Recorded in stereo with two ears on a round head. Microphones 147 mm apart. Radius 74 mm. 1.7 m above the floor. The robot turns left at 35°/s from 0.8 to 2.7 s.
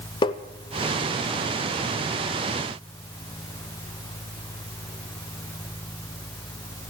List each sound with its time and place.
0.2 s tapping: 30° left (ahead or behind), 0.7 m